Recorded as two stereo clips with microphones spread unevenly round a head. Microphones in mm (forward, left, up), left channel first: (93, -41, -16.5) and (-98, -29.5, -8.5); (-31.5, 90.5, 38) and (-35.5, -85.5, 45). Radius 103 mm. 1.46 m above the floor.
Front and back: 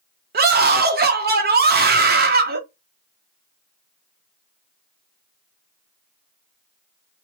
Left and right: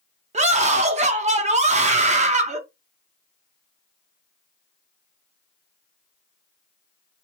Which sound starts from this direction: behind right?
A scream, at 0.3 s.